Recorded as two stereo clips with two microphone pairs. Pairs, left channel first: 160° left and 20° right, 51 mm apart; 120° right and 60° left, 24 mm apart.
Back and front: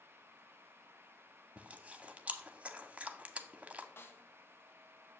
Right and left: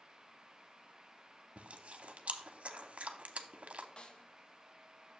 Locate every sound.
1.6 s chewing: 45° left, 0.6 m
4.0 s a snare drum: 165° right, 0.7 m